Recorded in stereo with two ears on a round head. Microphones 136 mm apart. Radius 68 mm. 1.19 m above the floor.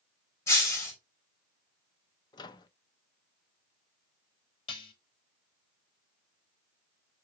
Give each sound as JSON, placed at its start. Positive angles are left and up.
{"t": 0.5, "sound": "breaking glass", "side_deg": 20, "distance_m": 4.0}
{"t": 2.3, "sound": "a microwave", "side_deg": 25, "distance_m": 0.5}
{"t": 4.7, "sound": "dishes clattering", "side_deg": 30, "distance_m": 1.3}